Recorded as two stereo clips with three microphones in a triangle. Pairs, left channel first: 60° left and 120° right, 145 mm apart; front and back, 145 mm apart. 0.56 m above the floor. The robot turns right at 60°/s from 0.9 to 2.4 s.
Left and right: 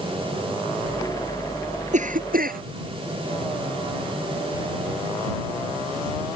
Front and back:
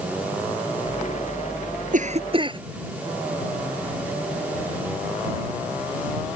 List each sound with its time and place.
1.9 s a cough: 155° right; by 2.6 s 125° right